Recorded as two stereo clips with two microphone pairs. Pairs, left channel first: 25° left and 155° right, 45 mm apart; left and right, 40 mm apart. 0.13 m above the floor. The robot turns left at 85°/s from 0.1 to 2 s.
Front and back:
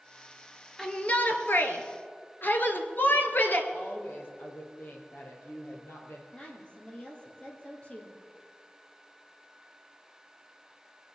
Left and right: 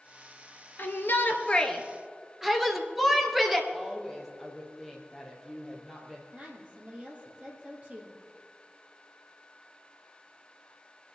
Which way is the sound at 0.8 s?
95° left.